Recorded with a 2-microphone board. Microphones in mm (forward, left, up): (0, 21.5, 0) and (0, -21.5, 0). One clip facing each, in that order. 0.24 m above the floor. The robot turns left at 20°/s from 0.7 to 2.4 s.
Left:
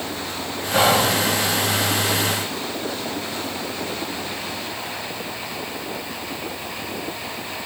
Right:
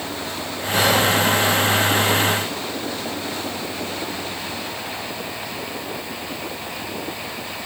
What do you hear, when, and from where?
0.7 s whispering: 35° left (ahead or behind), 1.7 m; by 1.1 s 30° left (ahead or behind), 1.7 m